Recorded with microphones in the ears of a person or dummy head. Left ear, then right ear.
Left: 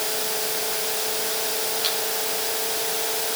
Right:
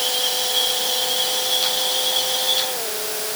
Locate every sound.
Only background noise.